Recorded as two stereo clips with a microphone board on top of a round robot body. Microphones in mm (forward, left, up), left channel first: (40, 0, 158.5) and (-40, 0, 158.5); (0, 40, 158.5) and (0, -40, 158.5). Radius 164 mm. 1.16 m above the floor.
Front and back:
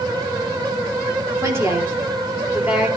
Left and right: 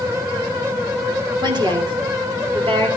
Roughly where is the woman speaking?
Behind right.